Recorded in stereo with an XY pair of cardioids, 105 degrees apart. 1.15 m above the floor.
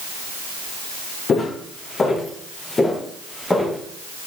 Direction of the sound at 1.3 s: 45° left.